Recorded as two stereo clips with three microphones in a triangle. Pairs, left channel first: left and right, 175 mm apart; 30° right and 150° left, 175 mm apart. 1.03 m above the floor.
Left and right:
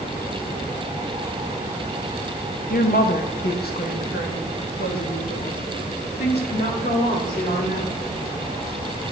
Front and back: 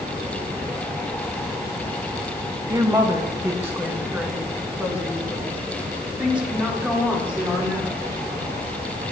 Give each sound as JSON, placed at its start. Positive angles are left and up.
{"t": 2.7, "sound": "a woman speaking", "azimuth_deg": 85, "distance_m": 0.9}